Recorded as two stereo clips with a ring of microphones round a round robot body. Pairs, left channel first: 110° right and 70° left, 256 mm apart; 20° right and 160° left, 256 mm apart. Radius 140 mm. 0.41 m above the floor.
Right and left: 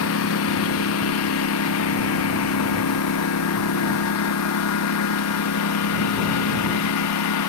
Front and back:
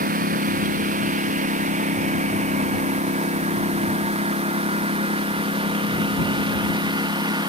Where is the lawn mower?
145° right; by 7.5 s 130° right.